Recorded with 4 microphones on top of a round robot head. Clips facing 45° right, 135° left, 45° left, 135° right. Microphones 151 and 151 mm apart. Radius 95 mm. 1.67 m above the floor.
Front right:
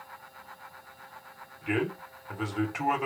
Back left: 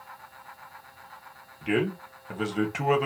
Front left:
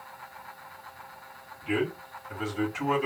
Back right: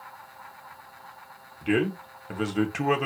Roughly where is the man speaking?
Behind.